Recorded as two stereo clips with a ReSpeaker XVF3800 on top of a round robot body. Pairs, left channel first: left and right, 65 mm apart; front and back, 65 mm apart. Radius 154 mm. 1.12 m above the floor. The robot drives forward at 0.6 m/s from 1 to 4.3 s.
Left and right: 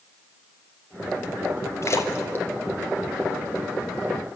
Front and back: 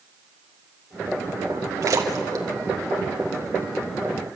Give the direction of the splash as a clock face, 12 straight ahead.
7 o'clock.